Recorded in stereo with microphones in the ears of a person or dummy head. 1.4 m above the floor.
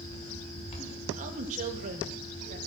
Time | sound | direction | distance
0.0 | a fan | 35° left (ahead or behind) | 4 m
1.2 | a woman speaking | 40° right (ahead or behind) | 2.5 m